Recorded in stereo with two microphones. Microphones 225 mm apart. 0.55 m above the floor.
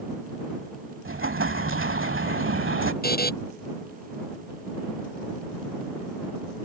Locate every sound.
1.1 s an explosion: 65° right (ahead or behind)
3.0 s a buzzer: 45° left (ahead or behind)